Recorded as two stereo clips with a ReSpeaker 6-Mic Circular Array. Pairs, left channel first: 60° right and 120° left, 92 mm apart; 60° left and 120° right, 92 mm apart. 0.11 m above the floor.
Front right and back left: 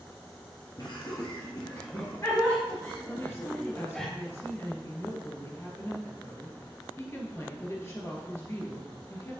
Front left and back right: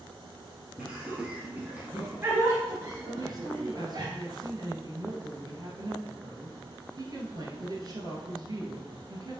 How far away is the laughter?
About 1.8 m.